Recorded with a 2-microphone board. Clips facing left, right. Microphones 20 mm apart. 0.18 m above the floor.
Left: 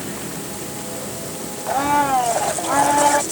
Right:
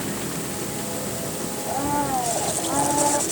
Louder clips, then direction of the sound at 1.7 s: Left 7 dB; 75° left (ahead or behind).